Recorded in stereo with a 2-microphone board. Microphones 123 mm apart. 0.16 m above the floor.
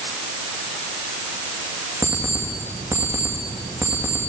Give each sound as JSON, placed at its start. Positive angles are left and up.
{"t": 2.0, "sound": "an alarm clock", "side_deg": -25, "distance_m": 7.0}